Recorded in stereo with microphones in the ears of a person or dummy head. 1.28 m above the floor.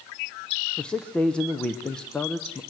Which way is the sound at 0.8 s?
10° left (ahead or behind).